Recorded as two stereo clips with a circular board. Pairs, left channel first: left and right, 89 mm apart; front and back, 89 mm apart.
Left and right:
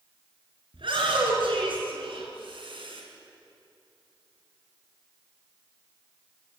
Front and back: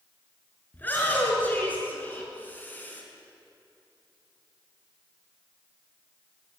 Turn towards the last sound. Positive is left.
turn(degrees=-70)